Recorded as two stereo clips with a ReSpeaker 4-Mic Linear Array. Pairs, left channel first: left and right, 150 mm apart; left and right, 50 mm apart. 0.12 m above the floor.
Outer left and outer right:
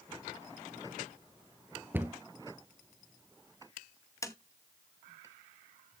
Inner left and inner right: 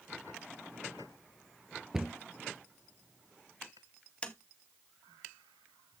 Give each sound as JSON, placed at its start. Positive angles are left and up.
{"t": 1.9, "sound": "a cupboard door", "side_deg": -15, "distance_m": 0.7}
{"t": 4.2, "sound": "tapping", "side_deg": 20, "distance_m": 0.7}